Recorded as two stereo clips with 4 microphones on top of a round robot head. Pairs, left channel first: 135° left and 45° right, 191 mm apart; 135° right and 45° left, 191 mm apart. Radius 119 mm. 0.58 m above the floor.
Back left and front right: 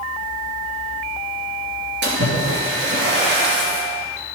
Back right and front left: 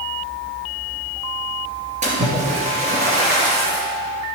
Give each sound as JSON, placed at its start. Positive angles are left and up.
{"t": 2.0, "sound": "a splash", "azimuth_deg": -15, "distance_m": 2.5}